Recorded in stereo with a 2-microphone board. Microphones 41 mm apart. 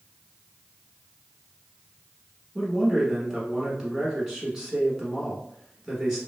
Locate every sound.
2.5 s a man speaking: 10° right (ahead or behind), 1.1 m